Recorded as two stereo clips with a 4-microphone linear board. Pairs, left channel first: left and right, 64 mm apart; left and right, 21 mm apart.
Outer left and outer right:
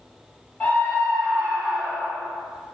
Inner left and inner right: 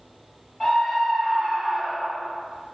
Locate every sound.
0.6 s a scream: 30° left (ahead or behind), 1.6 m; by 2.3 s 30° right (ahead or behind), 1.5 m